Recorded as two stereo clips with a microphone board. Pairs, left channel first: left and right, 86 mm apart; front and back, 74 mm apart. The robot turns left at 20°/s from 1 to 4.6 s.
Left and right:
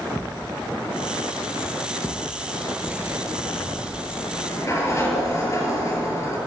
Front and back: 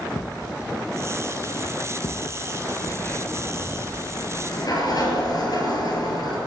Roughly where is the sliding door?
Ahead left.